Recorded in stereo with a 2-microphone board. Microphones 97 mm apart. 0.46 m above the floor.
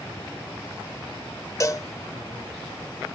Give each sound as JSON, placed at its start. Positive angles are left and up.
{"t": 1.6, "sound": "a cowbell", "side_deg": 35, "distance_m": 0.7}